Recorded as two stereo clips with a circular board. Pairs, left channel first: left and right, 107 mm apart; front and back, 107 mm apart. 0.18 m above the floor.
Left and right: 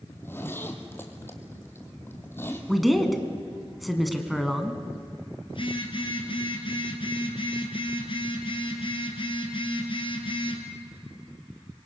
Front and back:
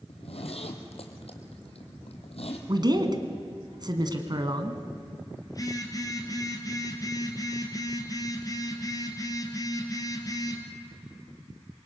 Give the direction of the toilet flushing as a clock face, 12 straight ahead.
No toilet flushing in this recording.